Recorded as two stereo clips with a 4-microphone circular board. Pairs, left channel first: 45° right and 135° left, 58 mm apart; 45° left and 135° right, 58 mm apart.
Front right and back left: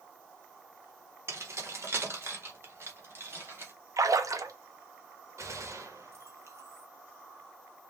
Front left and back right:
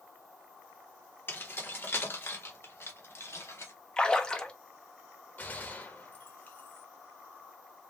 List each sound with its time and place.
1.3 s keys jangling: 100° left, 1.4 m; by 3.7 s 85° left, 2.5 m
4.0 s a splash: 120° left, 0.9 m
5.4 s a gunshot: 105° left, 1.5 m